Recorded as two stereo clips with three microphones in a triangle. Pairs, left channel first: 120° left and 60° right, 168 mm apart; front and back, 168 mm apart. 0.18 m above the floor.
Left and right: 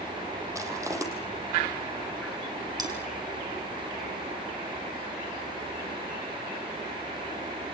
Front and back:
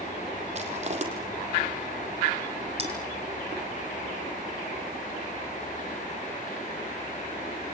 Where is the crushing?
130° right, 4 m.